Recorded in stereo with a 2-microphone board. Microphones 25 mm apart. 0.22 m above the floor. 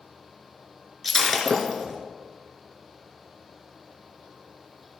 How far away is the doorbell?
I don't hear a doorbell.